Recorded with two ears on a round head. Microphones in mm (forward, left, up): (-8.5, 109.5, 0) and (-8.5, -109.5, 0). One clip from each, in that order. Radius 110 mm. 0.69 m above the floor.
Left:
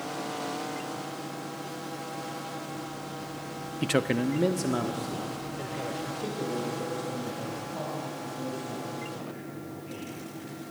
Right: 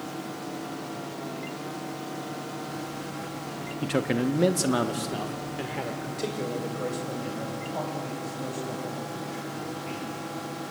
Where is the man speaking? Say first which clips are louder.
Even; 30° left (ahead or behind), 0.6 m; by 10.1 s 60° right (ahead or behind), 5.5 m.